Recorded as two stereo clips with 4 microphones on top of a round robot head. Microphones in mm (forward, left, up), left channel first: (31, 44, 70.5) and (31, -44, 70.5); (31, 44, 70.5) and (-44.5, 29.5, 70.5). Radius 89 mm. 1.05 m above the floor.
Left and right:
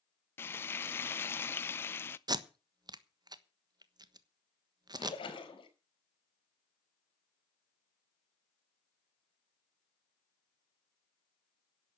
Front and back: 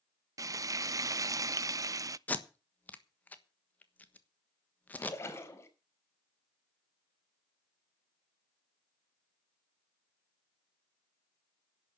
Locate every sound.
0.4 s frying: 150° left, 0.6 m
2.3 s tape being pulled: 60° right, 1.4 m
5.0 s a splash: 65° left, 5 m